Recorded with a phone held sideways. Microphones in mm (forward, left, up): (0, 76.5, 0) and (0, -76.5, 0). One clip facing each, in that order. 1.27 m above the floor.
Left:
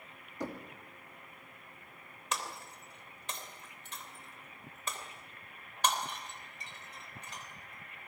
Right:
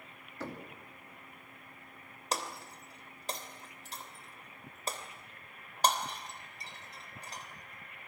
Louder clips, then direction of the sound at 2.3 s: Right 2 dB; 35° right (ahead or behind).